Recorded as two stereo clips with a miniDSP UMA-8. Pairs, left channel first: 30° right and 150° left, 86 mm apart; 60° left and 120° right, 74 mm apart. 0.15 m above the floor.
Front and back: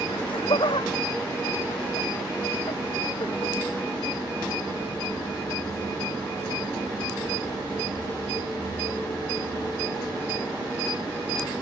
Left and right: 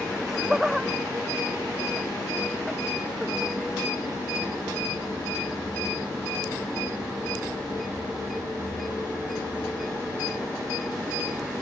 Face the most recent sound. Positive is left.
turn(degrees=-35)